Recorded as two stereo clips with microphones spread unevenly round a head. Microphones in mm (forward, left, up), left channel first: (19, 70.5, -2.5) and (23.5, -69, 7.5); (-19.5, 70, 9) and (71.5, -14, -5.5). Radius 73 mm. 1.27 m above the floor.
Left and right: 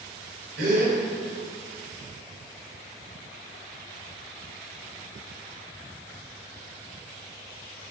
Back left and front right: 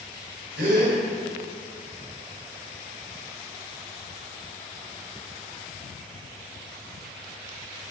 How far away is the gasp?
About 4.5 m.